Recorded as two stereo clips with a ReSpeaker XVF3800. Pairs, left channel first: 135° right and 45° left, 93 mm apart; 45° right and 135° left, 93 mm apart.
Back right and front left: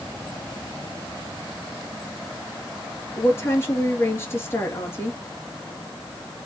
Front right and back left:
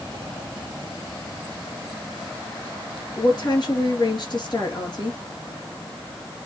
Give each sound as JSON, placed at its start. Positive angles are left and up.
{"t": 3.2, "sound": "a woman speaking", "azimuth_deg": -75, "distance_m": 2.5}